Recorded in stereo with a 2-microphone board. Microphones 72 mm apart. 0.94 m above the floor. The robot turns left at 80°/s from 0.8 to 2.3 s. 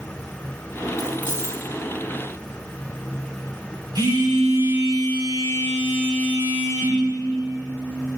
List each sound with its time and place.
1.0 s keys jangling: 5° right (ahead or behind), 5.5 m; by 1.6 s 55° right (ahead or behind), 5.5 m
4.0 s a phone buzzing: 60° right (ahead or behind), 6 m